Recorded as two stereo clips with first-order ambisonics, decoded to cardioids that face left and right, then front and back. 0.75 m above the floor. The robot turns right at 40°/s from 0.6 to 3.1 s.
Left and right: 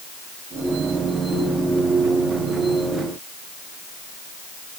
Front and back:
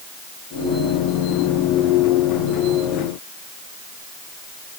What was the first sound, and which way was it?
Only background noise.